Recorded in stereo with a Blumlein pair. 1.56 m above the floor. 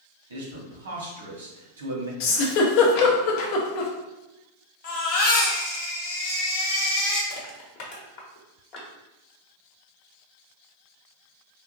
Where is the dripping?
I don't hear dripping.